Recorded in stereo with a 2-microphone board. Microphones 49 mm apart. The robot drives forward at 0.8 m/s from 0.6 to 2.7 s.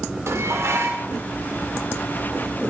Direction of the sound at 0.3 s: 65° right (ahead or behind).